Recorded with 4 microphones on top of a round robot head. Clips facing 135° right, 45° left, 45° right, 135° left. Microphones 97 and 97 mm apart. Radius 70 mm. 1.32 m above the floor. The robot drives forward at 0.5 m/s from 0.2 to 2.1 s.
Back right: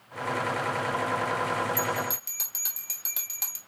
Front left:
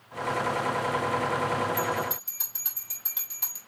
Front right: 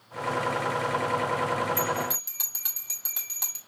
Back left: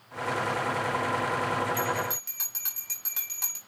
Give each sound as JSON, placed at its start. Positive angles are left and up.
{"t": 1.8, "sound": "a bell", "azimuth_deg": -120, "distance_m": 2.0}